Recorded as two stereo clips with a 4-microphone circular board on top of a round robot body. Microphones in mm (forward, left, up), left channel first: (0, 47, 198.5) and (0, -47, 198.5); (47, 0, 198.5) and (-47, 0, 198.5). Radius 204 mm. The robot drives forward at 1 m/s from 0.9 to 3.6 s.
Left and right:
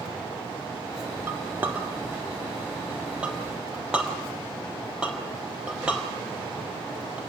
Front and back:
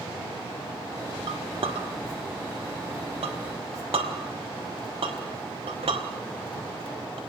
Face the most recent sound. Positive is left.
turn(degrees=-170)